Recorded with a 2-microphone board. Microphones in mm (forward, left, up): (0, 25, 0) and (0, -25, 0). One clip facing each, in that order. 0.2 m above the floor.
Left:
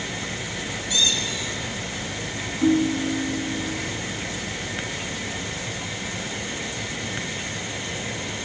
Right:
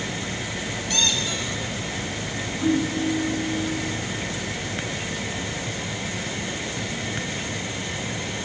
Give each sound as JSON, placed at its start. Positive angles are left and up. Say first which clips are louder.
{"t": 0.9, "sound": "a squeak", "louder": "left 1 dB", "side_deg": -60, "distance_m": 1.1}
{"t": 2.6, "sound": "a ringtone", "louder": "left 2 dB", "side_deg": 65, "distance_m": 3.5}